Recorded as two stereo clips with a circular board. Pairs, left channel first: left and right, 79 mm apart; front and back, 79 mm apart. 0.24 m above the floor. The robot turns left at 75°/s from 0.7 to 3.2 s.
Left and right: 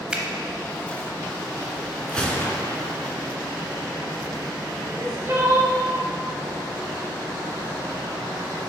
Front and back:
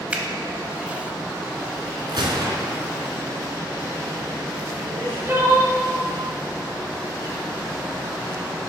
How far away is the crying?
About 0.9 m.